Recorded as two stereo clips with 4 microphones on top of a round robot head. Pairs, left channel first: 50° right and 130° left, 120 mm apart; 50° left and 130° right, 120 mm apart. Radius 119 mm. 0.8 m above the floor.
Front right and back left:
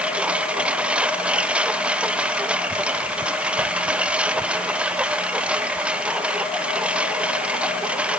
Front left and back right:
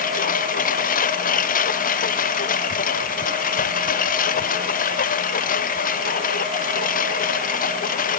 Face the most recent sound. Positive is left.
turn(degrees=45)